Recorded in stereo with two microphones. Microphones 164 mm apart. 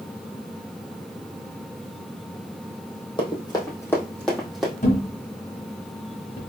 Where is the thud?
50° left (ahead or behind), 1.5 m.